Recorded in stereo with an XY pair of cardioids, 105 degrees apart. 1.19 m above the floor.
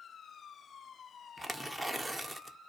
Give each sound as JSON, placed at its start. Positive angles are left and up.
{"t": 1.4, "sound": "tearing paper", "azimuth_deg": -10, "distance_m": 0.5}